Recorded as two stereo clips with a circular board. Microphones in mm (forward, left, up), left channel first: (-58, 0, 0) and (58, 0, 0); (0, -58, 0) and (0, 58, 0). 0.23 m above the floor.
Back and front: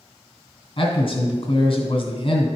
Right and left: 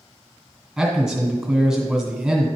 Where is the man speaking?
175° left, 2.0 m.